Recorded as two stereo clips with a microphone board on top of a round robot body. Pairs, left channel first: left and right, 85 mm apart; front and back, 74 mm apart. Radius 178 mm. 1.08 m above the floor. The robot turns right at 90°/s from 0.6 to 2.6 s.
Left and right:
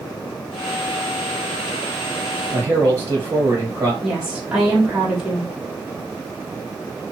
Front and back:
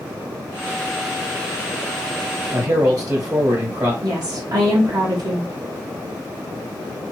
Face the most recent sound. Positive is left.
turn(degrees=-170)